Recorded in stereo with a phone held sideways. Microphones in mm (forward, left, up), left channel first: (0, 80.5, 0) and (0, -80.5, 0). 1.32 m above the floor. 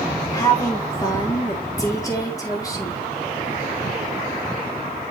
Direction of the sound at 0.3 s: 20° left (ahead or behind).